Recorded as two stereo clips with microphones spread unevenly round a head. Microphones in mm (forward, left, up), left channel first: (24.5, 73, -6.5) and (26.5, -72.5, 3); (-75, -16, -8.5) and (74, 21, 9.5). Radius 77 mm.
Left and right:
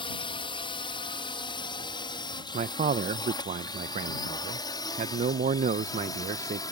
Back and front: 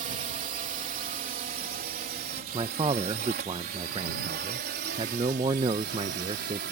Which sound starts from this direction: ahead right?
A man speaking, at 2.5 s.